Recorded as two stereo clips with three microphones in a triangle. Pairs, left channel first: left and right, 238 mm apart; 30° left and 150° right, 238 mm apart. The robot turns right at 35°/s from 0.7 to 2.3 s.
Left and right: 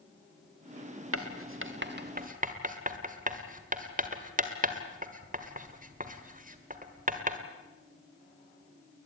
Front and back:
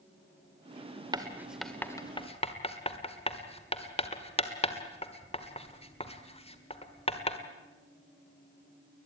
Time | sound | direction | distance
1.1 | writing | 75° right | 1.6 m